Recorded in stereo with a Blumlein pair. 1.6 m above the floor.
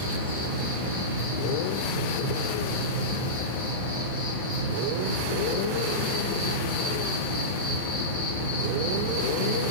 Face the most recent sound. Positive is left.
turn(degrees=65)